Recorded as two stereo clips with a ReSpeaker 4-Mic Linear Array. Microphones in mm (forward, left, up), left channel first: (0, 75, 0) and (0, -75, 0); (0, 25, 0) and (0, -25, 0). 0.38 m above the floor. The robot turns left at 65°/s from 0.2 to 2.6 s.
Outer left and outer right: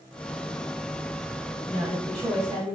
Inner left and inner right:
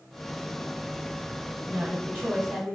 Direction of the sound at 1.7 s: 80° right.